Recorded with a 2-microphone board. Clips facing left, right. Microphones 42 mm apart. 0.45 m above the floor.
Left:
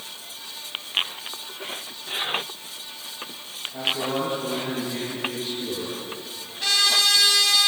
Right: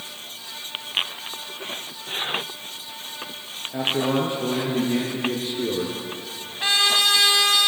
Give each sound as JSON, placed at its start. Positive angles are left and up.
{"t": 3.7, "sound": "a man speaking", "side_deg": -65, "distance_m": 7.0}
{"t": 6.6, "sound": "a trumpet", "side_deg": -30, "distance_m": 3.5}